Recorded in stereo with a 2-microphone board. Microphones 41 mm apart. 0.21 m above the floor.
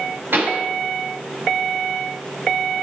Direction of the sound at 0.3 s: 65° right (ahead or behind).